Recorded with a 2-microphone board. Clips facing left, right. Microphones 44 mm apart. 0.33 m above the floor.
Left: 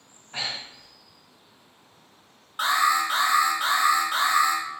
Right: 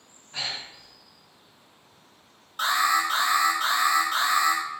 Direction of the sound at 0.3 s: 30° left (ahead or behind).